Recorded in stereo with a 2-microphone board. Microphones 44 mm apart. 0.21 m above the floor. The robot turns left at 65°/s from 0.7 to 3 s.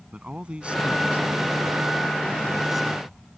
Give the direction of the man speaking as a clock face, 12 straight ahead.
1 o'clock.